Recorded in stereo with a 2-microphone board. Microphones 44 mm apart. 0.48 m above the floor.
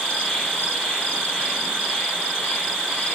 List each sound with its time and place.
0.0 s an insect: 15° left (ahead or behind), 1.4 m